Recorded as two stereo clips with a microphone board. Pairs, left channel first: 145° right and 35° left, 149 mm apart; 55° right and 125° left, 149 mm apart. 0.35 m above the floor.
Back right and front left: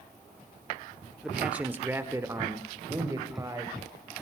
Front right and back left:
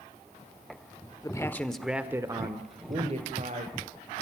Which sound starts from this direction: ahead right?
A man speaking, at 1.2 s.